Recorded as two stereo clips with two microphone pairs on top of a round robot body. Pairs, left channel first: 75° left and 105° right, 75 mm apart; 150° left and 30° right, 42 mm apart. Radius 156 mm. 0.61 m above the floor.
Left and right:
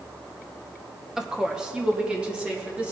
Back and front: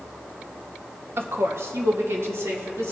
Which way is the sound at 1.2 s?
30° right.